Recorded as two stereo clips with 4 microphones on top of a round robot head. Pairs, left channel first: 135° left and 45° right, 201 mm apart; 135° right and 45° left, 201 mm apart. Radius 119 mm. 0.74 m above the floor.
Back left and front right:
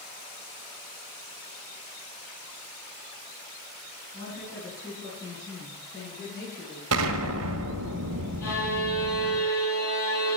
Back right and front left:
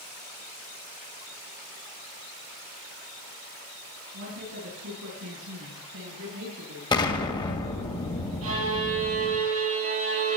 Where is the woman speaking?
65° left, 7 m; by 6.8 s 60° left, 8.5 m.